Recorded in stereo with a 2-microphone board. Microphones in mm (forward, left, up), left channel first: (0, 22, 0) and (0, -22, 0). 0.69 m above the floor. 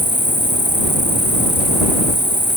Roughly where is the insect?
Left.